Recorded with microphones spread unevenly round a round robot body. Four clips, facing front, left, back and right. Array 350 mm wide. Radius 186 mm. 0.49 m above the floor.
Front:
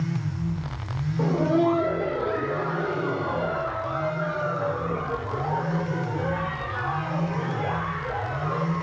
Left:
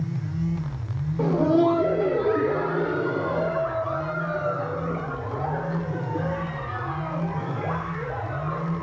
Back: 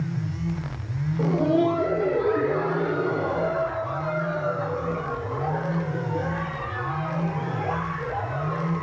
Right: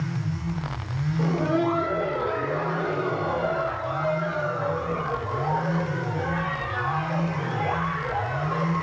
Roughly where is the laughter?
Left.